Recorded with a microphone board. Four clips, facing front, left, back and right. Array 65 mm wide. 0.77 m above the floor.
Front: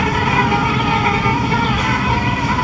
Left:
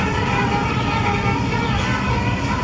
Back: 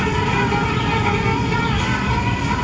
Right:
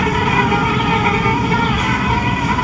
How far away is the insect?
About 0.9 m.